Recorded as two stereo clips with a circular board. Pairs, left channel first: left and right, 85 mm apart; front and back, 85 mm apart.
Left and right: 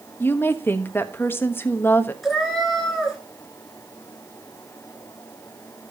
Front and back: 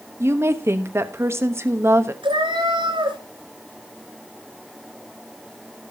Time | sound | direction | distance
0.2 | a woman speaking | 140° left | 1.1 m
2.2 | a cat meowing | 175° left | 3 m